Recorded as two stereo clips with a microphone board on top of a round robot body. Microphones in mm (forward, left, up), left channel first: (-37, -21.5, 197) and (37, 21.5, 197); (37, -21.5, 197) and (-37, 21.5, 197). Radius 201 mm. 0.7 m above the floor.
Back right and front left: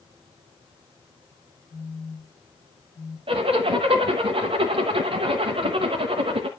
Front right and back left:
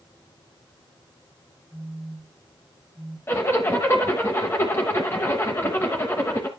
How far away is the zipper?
About 0.8 m.